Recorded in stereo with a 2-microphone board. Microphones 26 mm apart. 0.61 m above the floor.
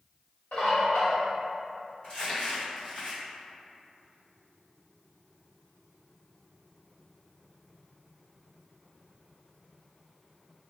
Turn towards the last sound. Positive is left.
turn(degrees=35)  # may be behind; listen again after turning